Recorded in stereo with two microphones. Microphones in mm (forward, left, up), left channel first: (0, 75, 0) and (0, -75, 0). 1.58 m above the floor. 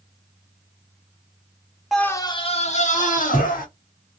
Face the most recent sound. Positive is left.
turn(degrees=65)  # may be behind; listen again after turning